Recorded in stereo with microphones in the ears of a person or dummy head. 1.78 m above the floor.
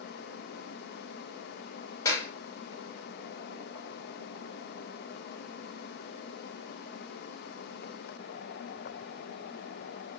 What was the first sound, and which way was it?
A clap, 20° left (ahead or behind).